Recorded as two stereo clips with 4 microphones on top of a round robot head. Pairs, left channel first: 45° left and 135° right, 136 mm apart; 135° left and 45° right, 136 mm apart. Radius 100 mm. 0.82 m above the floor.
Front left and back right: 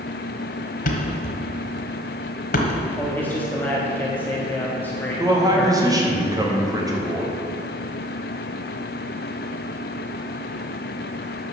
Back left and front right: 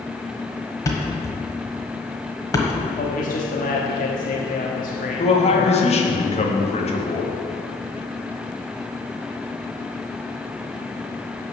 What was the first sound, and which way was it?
A thud, 70° left.